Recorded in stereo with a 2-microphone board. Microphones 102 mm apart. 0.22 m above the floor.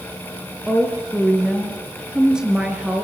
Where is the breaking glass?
I don't hear breaking glass.